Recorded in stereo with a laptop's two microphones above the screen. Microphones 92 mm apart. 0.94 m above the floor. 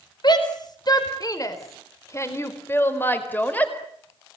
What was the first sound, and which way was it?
A shout, 55° left (ahead or behind).